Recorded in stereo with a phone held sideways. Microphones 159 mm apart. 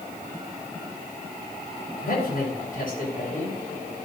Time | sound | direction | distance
2.0 | a man speaking | 65° left (ahead or behind) | 4.5 m